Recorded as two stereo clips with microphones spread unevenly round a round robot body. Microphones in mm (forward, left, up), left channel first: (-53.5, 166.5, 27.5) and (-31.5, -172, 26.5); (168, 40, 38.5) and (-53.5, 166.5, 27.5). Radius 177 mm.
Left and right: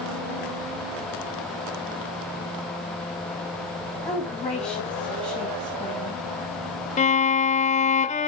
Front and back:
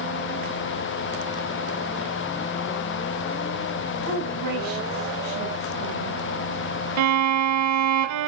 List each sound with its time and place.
4.0 s a woman speaking: straight behind, 4 m
7.0 s a violin: 165° left, 0.7 m